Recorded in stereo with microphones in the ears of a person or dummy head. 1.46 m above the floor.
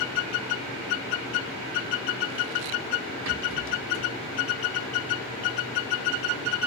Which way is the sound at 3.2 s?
65° right (ahead or behind).